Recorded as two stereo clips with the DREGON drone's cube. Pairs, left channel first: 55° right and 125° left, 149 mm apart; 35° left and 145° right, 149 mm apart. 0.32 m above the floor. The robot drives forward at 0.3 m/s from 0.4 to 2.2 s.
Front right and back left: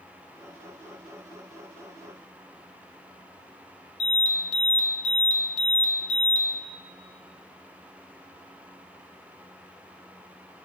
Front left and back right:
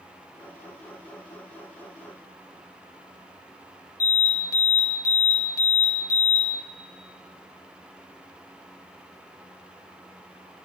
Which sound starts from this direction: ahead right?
An alarm, at 4.0 s.